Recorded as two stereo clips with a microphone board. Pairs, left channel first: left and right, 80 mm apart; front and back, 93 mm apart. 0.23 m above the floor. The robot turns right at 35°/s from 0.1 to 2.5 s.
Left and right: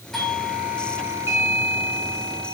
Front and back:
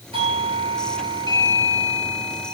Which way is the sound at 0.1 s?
175° left.